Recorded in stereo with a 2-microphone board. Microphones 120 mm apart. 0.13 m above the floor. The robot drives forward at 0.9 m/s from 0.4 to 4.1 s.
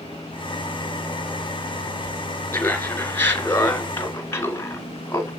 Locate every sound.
2.5 s laughter: 15° left (ahead or behind), 2.5 m; by 5.3 s 20° left (ahead or behind), 1.5 m